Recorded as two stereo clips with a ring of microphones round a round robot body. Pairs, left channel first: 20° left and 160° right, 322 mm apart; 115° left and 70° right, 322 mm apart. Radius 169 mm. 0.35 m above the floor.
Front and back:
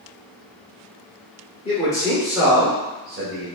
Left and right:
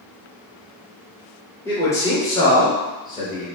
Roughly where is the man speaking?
Ahead left.